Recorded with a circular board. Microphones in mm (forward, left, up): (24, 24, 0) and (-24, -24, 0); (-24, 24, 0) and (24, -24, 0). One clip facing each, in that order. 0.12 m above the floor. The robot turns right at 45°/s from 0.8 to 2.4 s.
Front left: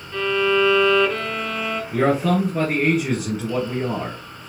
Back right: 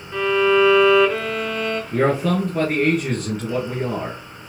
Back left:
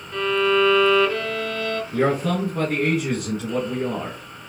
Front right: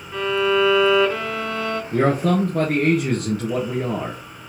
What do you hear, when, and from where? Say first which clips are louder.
0.1 s a violin: back right 3 dB, even; 90° right, 0.7 m; by 1.8 s 45° right, 0.7 m
1.9 s a man speaking: front left 1 dB, front right 3 dB; 60° right, 2 m; by 4.2 s 40° right, 2 m